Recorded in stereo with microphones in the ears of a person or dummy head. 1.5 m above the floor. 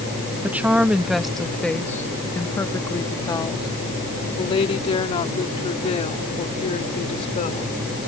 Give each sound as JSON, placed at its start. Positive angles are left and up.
{"t": 0.4, "sound": "a woman speaking", "side_deg": -5}